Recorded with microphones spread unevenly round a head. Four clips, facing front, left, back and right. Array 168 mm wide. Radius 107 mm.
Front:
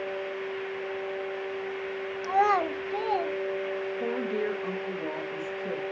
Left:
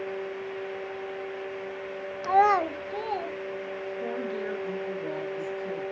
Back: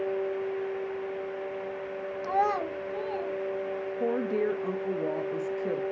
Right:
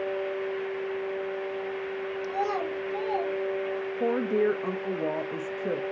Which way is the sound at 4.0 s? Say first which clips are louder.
Right 9 dB, back 4 dB; 105° right.